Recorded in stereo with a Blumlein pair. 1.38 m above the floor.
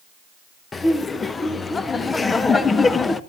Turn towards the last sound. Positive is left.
turn(degrees=15)